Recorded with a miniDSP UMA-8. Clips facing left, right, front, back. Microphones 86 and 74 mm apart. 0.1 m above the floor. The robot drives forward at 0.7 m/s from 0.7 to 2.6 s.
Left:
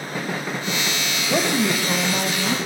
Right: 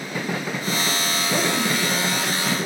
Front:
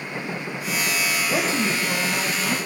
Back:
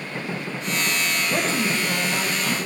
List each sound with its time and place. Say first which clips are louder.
1.3 s a woman speaking: left 3 dB, even; 75° left, 3 m; by 2.6 s 95° left, 3 m